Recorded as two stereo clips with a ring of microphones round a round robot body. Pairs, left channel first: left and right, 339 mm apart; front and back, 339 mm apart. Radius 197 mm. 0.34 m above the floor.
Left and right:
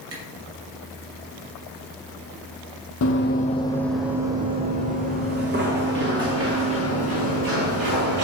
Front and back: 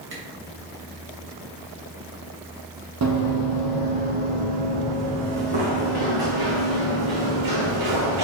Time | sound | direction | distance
0.1 | a camera shutter | 130° right | 2.5 m
3.0 | running footsteps | 140° left | 0.8 m